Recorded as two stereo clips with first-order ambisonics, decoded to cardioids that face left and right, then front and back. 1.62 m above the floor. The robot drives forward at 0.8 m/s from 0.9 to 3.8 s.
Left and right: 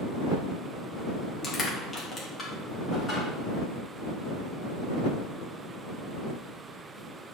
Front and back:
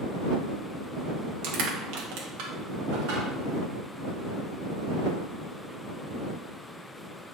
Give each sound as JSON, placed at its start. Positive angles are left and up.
{"t": 1.4, "sound": "crushing", "azimuth_deg": 155, "distance_m": 3.0}